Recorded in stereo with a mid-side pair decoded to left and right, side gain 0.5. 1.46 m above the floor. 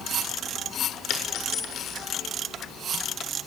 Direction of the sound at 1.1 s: 60° left.